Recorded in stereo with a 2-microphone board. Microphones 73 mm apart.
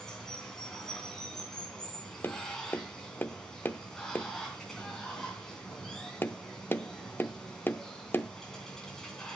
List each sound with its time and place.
0.0 s running water: 5° left (ahead or behind), 3 m
2.2 s tapping: 25° left (ahead or behind), 0.6 m